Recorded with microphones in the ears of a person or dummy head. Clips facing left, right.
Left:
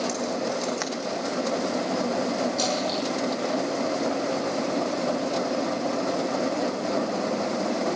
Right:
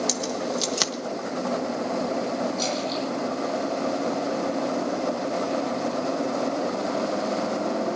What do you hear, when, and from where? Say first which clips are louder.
0.1 s keys jangling: even; 50° right (ahead or behind), 1.2 m
2.6 s a splash: left 1 dB; 60° left (ahead or behind), 9 m